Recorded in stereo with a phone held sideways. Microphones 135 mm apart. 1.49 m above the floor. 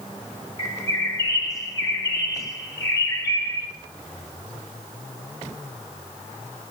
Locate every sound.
0.6 s a bird: 25° left (ahead or behind), 2.0 m